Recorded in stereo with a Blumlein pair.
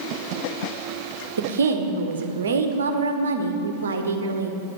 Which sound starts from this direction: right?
A woman speaking, at 1.4 s.